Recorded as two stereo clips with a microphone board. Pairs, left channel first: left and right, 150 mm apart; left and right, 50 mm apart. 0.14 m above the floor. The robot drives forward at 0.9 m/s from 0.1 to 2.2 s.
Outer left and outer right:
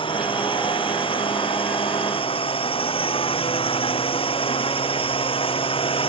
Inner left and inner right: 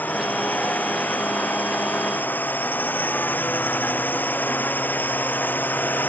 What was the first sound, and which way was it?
A drone, 35° left (ahead or behind).